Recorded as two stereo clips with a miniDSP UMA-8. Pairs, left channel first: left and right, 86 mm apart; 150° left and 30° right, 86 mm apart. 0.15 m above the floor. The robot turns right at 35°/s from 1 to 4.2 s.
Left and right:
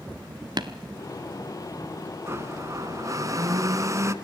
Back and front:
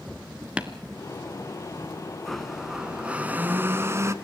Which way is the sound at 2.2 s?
130° right.